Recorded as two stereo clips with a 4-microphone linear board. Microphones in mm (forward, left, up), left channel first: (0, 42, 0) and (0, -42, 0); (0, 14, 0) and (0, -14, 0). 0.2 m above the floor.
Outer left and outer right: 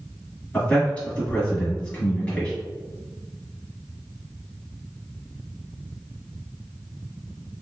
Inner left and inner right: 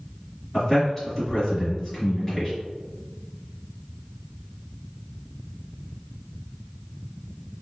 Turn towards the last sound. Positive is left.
turn(degrees=15)  # may be behind; listen again after turning